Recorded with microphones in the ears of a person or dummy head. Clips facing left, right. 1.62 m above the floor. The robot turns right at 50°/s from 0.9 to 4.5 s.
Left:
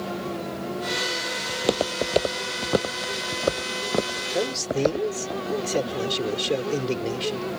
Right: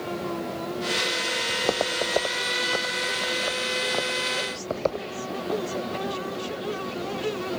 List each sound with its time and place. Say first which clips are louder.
1.5 s footsteps: left 3 dB; 10° left (ahead or behind); by 5.1 s 20° left (ahead or behind)
4.3 s a man speaking: left 6 dB; 85° left; by 7.5 s 90° left